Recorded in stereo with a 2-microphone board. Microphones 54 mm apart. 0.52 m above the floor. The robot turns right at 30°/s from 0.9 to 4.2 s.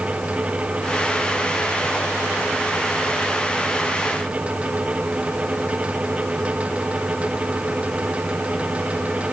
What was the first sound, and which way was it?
Only background noise.